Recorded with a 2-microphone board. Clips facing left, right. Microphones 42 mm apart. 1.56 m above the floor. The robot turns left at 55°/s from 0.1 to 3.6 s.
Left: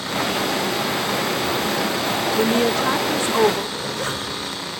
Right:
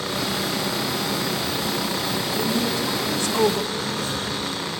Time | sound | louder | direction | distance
2.3 | a woman speaking | left 6 dB | 80° left | 0.7 m
3.7 | a zipper | left 1 dB | 80° left | 5 m